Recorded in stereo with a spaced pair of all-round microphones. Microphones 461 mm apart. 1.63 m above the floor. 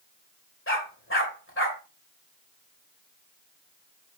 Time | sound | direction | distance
0.7 | a dog barking | 25° left (ahead or behind) | 2.5 m